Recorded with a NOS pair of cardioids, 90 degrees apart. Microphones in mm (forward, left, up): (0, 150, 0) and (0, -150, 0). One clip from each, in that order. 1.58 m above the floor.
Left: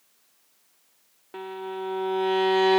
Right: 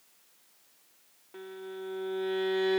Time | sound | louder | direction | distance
1.3 | a violin | left 8 dB | 65° left | ?